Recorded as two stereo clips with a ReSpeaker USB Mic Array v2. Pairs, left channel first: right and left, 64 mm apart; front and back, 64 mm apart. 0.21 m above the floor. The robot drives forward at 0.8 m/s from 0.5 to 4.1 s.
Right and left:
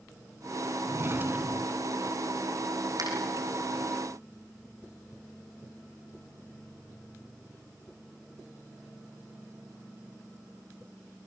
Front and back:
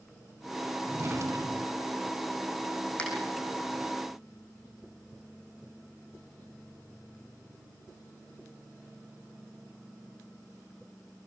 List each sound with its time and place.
0.9 s a drawer: 125° left, 0.5 m; by 1.9 s 160° left, 1.2 m
3.0 s a finger snap: 75° left, 7.5 m